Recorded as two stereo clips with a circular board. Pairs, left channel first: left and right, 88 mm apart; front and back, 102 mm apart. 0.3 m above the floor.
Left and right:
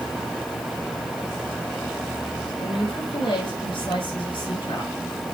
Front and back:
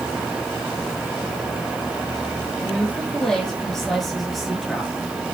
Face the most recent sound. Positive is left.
turn(degrees=95)